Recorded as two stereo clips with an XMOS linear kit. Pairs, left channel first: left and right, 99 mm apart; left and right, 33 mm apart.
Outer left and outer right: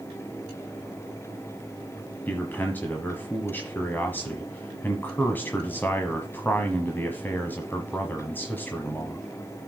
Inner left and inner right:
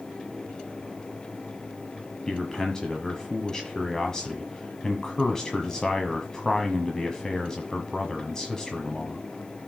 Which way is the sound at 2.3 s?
20° left (ahead or behind).